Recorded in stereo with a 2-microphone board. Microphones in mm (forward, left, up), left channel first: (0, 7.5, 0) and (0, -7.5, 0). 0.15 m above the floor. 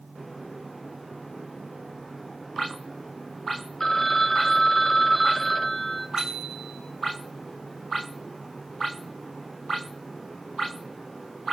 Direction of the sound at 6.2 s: 50° right (ahead or behind).